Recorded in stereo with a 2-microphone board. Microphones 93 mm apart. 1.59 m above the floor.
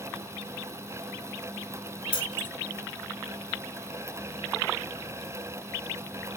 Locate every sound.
2.1 s keys jangling: 70° left (ahead or behind), 2 m